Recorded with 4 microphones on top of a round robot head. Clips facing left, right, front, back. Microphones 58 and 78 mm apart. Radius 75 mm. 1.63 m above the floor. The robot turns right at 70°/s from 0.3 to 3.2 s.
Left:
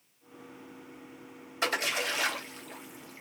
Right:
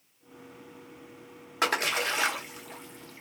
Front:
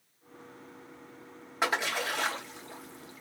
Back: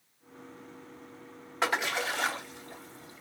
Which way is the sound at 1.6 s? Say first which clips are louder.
Right 3 dB, even; 80° right.